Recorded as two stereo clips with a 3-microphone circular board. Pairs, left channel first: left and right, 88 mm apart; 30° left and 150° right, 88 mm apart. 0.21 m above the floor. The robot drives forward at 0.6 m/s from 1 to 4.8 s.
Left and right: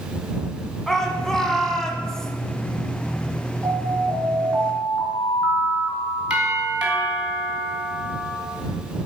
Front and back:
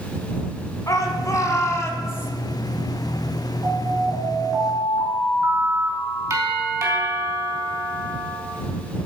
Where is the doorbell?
155° right, 2.5 m.